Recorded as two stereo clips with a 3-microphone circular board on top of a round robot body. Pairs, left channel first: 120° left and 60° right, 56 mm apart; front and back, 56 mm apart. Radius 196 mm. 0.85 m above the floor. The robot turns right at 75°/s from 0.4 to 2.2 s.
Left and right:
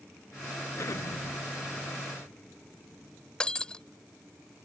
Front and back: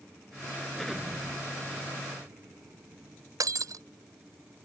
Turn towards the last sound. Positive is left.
turn(degrees=-165)